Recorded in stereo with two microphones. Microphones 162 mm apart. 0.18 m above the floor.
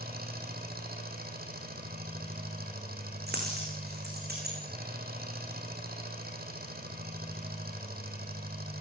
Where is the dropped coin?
85° right, 8 m.